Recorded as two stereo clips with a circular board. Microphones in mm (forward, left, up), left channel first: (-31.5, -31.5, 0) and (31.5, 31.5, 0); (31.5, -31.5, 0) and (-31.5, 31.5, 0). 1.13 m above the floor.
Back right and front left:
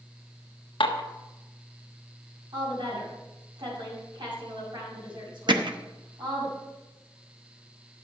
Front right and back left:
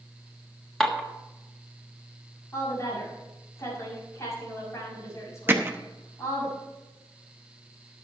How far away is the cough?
I don't hear a cough.